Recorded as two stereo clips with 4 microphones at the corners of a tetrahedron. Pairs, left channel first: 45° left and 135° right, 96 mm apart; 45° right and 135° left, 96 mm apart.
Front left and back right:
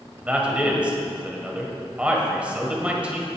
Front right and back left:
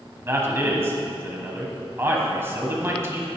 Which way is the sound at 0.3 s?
160° left.